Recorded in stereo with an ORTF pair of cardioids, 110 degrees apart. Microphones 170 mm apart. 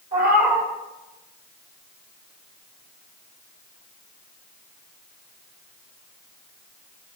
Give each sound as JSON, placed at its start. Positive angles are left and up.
{"t": 0.1, "sound": "a cat meowing", "azimuth_deg": -45, "distance_m": 2.5}